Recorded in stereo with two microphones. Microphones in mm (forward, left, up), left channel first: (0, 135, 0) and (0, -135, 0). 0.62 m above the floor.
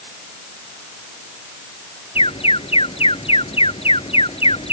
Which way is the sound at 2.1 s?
20° left (ahead or behind).